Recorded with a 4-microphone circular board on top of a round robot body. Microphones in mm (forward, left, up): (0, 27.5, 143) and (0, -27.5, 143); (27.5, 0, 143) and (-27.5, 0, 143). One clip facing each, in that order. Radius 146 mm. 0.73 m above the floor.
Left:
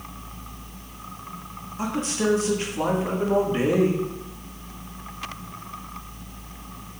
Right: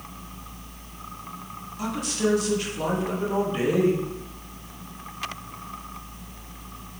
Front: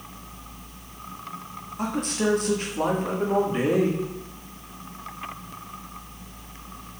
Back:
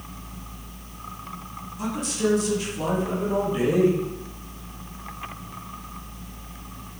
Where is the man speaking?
30° left, 2 m.